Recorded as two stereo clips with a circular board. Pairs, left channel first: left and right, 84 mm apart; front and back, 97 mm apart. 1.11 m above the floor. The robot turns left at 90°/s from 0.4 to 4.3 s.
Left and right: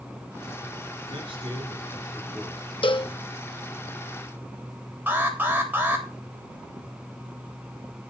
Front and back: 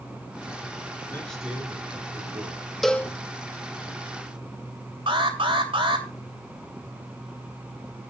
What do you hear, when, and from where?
1.1 s a man speaking: 65° right, 7 m; by 2.7 s 150° left, 7 m
2.8 s a cowbell: 90° left, 1.1 m; by 3.1 s 60° left, 1.1 m
5.1 s an alarm: 155° right, 3.5 m